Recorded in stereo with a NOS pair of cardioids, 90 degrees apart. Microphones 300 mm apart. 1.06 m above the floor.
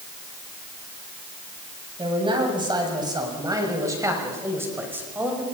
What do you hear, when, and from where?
2.0 s a man speaking: 15° right, 7.5 m; by 5.4 s 5° right, 6 m